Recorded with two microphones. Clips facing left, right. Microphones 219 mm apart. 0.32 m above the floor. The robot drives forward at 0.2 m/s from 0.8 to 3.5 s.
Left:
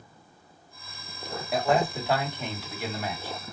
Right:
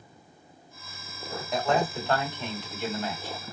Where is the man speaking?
10° left (ahead or behind), 1.9 m.